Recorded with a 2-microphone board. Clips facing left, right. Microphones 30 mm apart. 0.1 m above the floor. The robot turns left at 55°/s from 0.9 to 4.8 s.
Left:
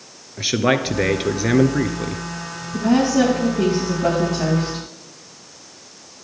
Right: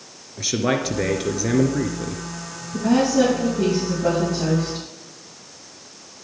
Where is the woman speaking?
175° left, 9 m; by 4.8 s 65° left, 9 m.